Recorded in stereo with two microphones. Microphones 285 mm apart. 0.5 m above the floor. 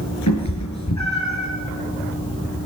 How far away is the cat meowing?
About 3.5 m.